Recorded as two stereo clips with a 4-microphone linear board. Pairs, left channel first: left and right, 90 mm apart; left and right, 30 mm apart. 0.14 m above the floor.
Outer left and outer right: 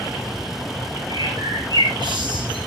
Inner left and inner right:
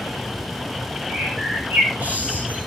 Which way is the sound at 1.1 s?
65° right (ahead or behind).